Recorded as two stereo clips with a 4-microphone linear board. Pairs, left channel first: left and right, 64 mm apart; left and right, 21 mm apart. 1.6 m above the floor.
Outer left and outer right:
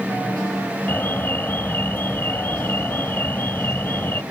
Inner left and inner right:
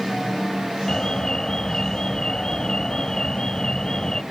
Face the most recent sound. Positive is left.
turn(degrees=30)  # may be behind; listen again after turning